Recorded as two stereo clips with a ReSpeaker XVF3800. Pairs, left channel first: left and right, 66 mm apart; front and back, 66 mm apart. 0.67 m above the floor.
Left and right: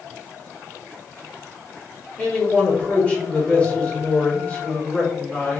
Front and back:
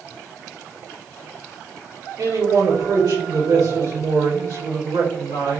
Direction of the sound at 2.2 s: 160° left.